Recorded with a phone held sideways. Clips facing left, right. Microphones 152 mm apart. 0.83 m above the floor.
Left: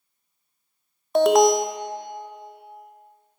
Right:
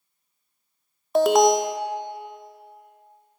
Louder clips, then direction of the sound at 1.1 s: Left 1 dB; centre (ahead or behind).